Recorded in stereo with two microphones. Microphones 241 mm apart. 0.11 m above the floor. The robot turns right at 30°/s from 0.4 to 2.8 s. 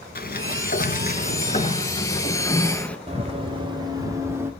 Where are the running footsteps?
25° right (ahead or behind), 3 m; by 4.5 s 10° right (ahead or behind), 3 m.